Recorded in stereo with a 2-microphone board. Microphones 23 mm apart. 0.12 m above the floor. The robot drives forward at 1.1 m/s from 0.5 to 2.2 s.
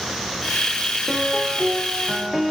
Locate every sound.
1.1 s a piano: 5° left (ahead or behind), 9 m